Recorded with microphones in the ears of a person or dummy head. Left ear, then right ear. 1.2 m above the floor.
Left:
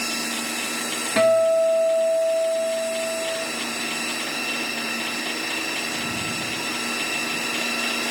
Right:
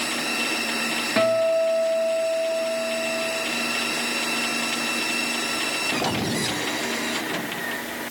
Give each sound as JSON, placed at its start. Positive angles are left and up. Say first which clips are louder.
{"t": 1.2, "sound": "a guitar", "louder": "left 3 dB", "side_deg": 5, "distance_m": 0.8}